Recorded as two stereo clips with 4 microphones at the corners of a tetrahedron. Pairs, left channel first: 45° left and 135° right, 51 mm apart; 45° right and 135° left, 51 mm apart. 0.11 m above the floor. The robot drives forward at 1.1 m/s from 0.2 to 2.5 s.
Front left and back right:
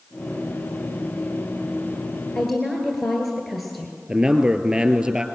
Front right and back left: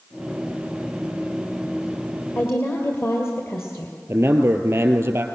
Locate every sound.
2.4 s a woman speaking: 40° right, 2 m; by 4.0 s 45° right, 2.0 m
4.1 s a man speaking: 160° left, 1.9 m